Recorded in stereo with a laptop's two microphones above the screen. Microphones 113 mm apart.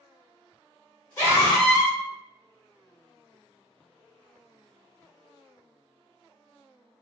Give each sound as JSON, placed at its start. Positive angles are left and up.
{"t": 1.2, "sound": "a scream", "side_deg": 20, "distance_m": 1.4}